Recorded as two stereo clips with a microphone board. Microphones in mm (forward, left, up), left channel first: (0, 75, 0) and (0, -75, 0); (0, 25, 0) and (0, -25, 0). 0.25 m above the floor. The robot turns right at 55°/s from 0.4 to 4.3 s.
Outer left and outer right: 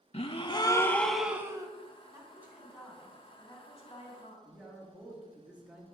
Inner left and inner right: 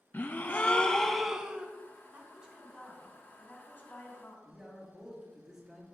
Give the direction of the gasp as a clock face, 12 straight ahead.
7 o'clock.